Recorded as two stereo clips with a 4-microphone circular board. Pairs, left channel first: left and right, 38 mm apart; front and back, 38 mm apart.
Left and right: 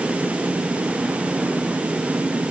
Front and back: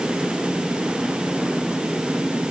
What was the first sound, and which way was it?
Only background noise.